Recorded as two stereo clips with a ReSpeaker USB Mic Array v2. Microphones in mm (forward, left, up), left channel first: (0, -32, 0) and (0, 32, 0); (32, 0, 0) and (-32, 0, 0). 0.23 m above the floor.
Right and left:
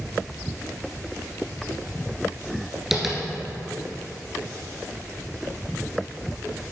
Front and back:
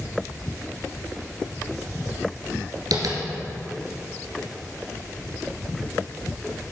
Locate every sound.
2.9 s tapping: 175° left, 1.8 m